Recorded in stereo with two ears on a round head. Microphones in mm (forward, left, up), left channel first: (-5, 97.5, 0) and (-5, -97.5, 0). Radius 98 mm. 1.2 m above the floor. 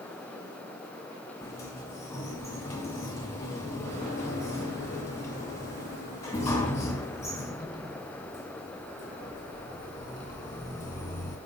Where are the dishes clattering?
I don't hear dishes clattering.